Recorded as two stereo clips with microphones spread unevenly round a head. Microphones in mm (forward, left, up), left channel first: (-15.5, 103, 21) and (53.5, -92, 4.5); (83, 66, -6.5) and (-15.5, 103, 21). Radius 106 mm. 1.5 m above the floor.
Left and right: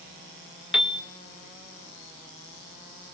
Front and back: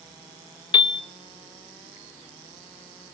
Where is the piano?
15° left, 1.1 m.